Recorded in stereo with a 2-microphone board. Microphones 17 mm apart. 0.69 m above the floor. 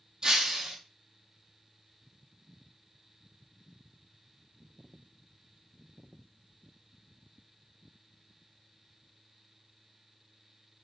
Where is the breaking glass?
35° right (ahead or behind), 1.4 m.